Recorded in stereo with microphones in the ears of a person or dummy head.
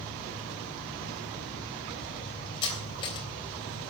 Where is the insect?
35° left (ahead or behind), 3 m.